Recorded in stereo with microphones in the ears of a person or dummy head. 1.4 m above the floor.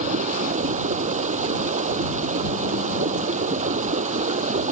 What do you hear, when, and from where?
0.0 s running water: 35° right (ahead or behind)